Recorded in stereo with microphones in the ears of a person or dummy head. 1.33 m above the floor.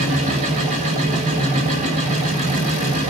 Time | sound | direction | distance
0.0 | a machine running | 40° right (ahead or behind) | 2.0 m